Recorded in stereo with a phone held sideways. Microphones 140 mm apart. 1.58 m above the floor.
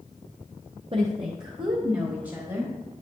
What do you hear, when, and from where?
0.9 s a woman speaking: 45° right (ahead or behind), 0.7 m; by 2.7 s 30° right (ahead or behind), 1.8 m